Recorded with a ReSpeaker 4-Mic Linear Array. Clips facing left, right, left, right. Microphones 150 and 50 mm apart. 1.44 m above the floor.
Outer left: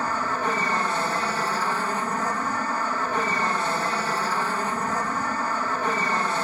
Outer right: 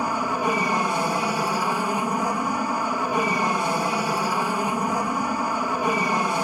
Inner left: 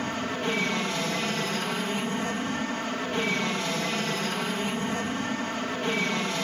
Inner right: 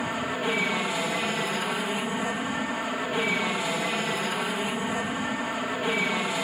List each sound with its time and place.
0.0 s an aircraft: 10° right (ahead or behind)